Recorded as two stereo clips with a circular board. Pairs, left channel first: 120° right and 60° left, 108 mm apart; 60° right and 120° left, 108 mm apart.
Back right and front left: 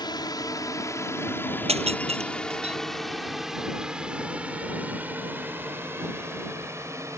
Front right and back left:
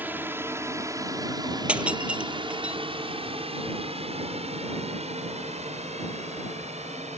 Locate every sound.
0.0 s a drone: 170° right; by 7.2 s 125° left
1.7 s breaking glass: 40° left